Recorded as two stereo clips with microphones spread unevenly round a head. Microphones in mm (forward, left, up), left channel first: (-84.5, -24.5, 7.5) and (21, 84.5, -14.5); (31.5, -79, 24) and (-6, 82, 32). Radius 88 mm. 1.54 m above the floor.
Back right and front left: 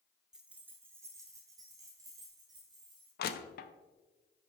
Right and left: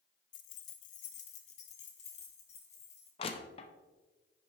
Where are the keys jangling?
45° right, 0.6 m; by 3.1 s 25° right, 2.5 m.